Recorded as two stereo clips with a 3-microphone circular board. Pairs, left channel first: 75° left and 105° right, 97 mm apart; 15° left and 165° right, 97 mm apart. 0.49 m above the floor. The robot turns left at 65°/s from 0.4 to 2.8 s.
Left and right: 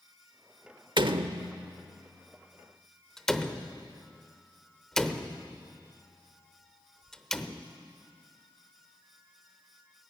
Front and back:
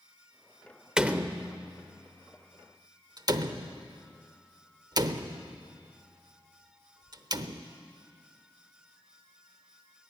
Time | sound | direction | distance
1.0 | a door slam | 85° right | 0.8 m